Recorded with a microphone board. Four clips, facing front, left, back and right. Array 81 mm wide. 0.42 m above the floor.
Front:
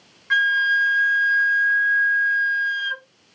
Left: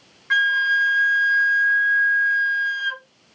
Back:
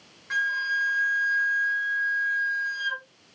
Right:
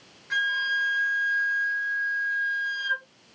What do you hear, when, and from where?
0.3 s a flute: 60° left, 0.7 m